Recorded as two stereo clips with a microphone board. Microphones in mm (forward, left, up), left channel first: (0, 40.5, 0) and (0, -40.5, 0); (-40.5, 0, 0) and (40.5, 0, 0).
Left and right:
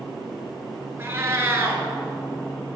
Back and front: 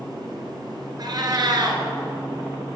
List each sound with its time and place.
1.0 s a cat meowing: 30° right, 0.9 m